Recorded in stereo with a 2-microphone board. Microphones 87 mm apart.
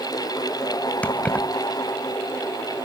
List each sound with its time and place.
1.0 s keys jangling: 20° left (ahead or behind), 0.7 m